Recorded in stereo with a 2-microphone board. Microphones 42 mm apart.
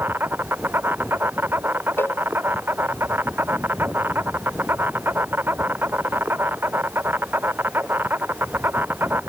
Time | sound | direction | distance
0.0 | an insect | 55° right (ahead or behind) | ?
2.0 | a cowbell | 65° left (ahead or behind) | ?